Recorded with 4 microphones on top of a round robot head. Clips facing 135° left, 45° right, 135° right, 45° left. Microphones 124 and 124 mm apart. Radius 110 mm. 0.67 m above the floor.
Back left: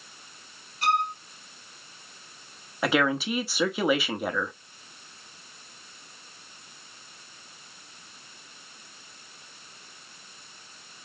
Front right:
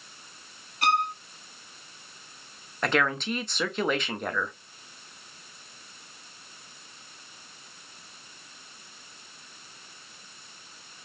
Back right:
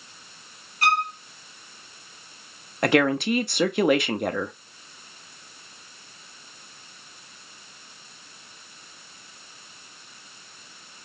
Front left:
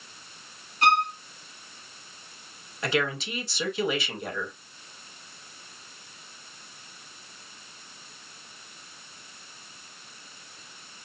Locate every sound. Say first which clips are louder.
0.8 s a violin: even, front left 1 dB; 20° right, 1.2 m
2.8 s a woman speaking: back left 2 dB, back right 8 dB; 140° right, 0.9 m